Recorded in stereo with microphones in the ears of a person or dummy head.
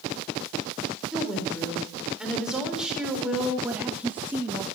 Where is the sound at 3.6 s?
10° right (ahead or behind), 1.1 m.